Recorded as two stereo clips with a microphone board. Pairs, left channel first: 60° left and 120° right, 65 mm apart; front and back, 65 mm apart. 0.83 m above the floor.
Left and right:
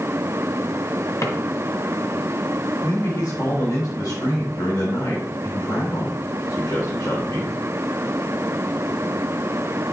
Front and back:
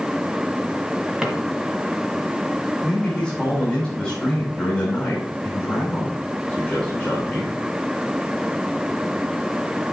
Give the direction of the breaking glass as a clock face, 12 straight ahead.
No breaking glass in this recording.